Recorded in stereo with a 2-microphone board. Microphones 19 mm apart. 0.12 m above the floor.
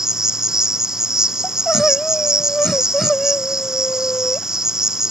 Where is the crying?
20° left (ahead or behind).